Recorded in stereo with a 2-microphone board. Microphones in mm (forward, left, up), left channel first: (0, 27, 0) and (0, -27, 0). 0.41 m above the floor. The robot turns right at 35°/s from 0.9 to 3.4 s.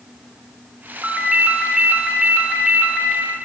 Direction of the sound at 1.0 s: 25° right (ahead or behind).